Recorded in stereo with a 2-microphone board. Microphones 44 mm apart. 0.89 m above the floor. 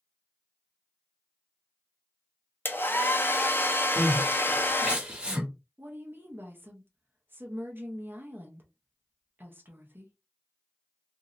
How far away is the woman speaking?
About 0.8 m.